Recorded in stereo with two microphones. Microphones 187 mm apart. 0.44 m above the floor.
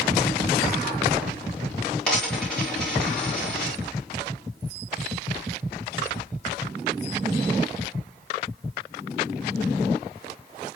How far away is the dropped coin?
About 6 m.